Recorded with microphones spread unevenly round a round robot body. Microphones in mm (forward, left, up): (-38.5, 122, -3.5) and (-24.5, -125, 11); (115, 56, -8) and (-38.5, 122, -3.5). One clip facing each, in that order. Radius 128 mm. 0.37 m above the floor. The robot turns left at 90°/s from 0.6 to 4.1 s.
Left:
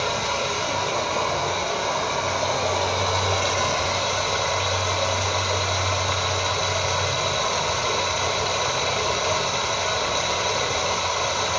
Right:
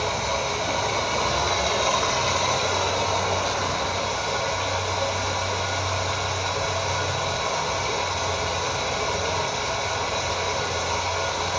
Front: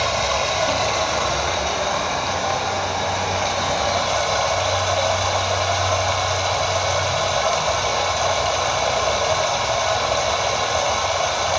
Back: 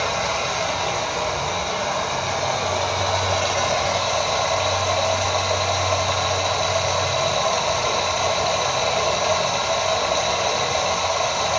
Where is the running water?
30° left, 0.9 m; by 11.6 s 75° left, 0.9 m.